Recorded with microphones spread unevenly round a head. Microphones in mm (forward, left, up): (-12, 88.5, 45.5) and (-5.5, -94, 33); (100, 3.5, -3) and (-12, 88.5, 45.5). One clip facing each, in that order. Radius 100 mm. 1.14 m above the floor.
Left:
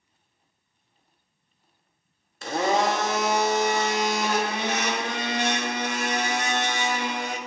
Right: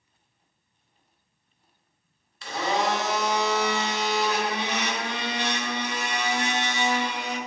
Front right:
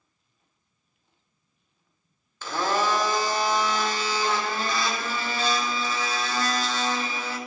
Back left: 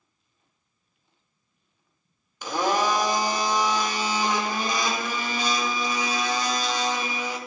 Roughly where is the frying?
No frying in this recording.